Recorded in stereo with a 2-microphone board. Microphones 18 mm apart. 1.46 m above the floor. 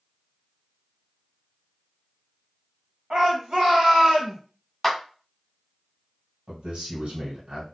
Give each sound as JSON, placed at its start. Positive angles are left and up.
{"t": 3.1, "sound": "a shout", "side_deg": -65, "distance_m": 2.5}
{"t": 4.8, "sound": "a clap", "side_deg": 10, "distance_m": 1.3}
{"t": 6.5, "sound": "a man speaking", "side_deg": -70, "distance_m": 2.0}